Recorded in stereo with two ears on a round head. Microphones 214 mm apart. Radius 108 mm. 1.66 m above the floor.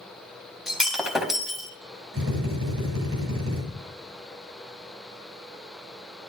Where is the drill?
65° right (ahead or behind), 9.5 m.